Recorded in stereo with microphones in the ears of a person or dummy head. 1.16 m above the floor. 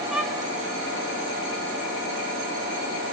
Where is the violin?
5° right (ahead or behind), 0.9 m.